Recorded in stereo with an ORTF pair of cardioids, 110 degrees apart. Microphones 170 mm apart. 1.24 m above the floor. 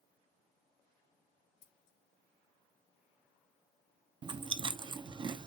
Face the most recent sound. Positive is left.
turn(degrees=-30)